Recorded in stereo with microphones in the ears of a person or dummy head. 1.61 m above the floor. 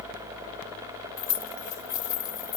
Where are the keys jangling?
20° left (ahead or behind), 1.6 m.